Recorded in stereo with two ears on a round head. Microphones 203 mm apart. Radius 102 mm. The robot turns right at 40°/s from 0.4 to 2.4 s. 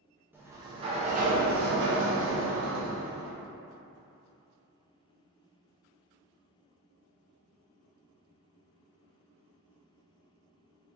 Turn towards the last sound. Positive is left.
turn(degrees=-90)